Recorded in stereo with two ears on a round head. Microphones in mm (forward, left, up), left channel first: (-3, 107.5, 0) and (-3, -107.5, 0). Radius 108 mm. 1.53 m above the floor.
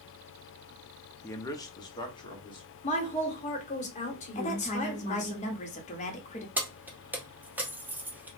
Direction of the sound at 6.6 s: 5° right (ahead or behind).